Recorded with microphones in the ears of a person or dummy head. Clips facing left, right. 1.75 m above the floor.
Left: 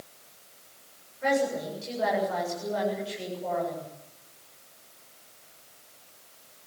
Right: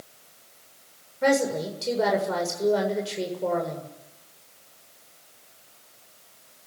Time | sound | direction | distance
1.2 | a woman speaking | 70° right (ahead or behind) | 7.5 m